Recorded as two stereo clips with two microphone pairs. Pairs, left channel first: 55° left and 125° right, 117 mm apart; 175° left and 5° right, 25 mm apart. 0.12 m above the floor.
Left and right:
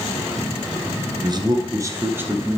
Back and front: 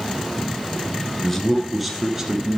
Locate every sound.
1.2 s a man speaking: 125° right, 1.4 m; by 2.6 s 50° right, 1.4 m